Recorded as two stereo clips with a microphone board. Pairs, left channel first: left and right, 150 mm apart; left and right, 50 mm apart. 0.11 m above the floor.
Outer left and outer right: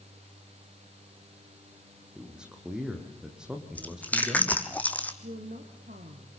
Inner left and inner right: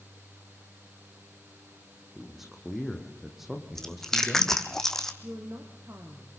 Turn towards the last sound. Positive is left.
turn(degrees=-70)  # may be behind; listen again after turning